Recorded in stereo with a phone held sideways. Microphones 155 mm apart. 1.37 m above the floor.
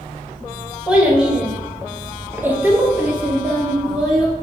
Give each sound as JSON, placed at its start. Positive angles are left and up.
{"t": 0.9, "sound": "a child speaking", "side_deg": -5, "distance_m": 1.1}